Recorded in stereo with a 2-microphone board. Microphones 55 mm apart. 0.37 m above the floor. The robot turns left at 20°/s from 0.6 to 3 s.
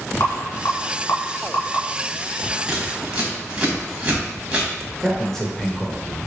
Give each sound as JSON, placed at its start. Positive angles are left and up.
{"t": 0.2, "sound": "a rattle", "side_deg": 60, "distance_m": 1.4}
{"t": 2.7, "sound": "scissors", "side_deg": -15, "distance_m": 1.3}
{"t": 5.0, "sound": "a man speaking", "side_deg": 5, "distance_m": 0.9}